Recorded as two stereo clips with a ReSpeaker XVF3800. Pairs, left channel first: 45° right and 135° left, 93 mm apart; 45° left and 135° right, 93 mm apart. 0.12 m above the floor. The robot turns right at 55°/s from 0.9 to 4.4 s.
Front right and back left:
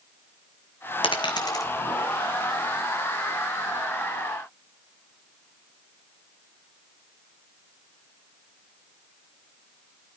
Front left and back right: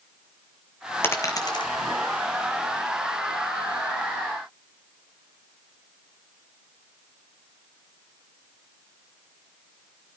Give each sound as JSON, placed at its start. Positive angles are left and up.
{"t": 1.0, "sound": "a dropped coin", "azimuth_deg": -25, "distance_m": 1.4}